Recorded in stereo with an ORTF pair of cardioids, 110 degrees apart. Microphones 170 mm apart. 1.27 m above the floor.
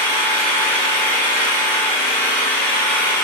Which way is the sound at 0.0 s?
10° left.